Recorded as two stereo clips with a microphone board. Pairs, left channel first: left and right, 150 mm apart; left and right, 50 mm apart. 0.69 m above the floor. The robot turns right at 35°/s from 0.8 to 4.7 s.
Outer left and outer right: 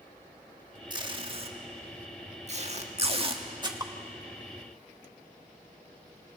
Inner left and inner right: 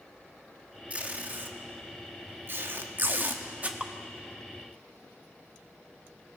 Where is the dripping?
25° right (ahead or behind), 0.7 m.